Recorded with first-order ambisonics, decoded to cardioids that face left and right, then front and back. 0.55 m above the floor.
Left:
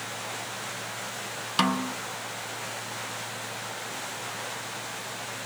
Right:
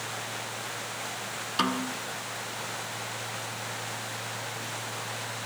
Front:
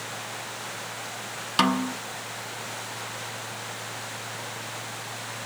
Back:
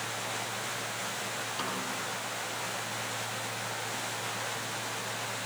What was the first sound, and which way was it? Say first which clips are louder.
A snare drum: left 3 dB, front 15 dB; 25° left.